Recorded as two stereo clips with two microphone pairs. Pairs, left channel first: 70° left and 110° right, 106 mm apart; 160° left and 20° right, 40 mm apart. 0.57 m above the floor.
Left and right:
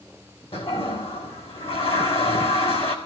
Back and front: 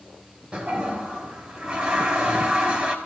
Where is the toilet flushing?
45° left, 4.5 m.